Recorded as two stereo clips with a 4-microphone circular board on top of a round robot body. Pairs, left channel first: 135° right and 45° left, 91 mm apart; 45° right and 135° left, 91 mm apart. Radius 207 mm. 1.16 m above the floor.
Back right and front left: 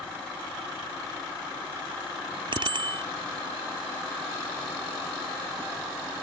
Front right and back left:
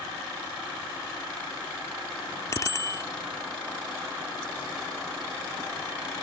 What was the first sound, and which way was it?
A bicycle bell, 10° left.